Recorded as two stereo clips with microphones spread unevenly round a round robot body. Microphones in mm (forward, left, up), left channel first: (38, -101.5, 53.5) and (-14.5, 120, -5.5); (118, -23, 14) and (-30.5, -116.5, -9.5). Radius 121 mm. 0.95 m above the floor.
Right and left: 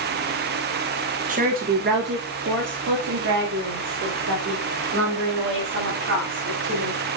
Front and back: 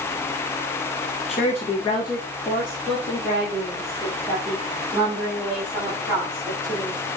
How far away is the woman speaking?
About 1.2 m.